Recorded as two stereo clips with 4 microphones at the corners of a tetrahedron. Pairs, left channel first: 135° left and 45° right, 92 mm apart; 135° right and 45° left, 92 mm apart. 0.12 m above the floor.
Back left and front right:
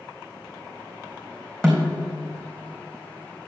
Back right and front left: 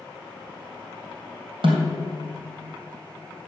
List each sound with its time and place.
1.6 s a snare drum: 55° left, 2.5 m